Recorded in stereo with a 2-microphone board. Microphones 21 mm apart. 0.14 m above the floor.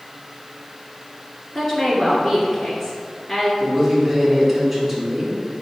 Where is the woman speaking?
15° left (ahead or behind), 1.5 m.